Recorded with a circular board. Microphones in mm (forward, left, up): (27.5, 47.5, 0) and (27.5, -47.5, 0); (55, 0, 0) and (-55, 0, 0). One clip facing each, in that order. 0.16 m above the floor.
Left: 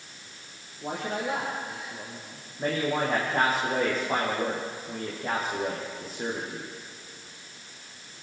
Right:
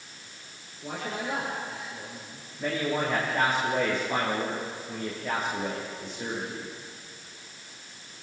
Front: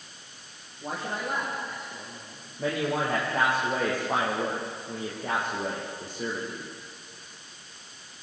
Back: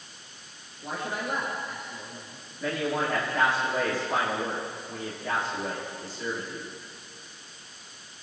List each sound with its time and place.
0.8 s a man speaking: 55° left, 7.5 m
2.6 s a man speaking: 40° left, 8 m